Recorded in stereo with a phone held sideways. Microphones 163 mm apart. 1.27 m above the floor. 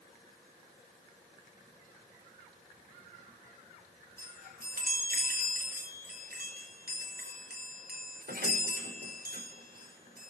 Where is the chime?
70° right (ahead or behind), 5.5 m.